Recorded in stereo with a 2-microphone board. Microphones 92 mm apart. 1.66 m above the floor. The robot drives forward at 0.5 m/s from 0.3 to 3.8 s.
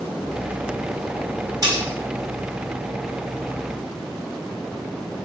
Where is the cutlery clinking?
45° right (ahead or behind), 3 m.